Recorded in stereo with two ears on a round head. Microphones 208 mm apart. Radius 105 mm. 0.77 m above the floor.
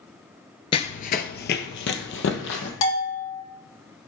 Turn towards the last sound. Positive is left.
turn(degrees=85)